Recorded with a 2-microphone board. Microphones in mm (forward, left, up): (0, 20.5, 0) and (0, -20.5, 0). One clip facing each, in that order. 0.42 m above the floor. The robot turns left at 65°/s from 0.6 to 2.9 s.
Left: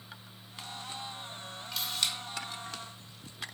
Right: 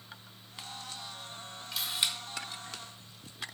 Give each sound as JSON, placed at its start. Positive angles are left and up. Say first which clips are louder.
{"t": 1.7, "sound": "a camera shutter", "louder": "right 1 dB", "side_deg": -5, "distance_m": 0.8}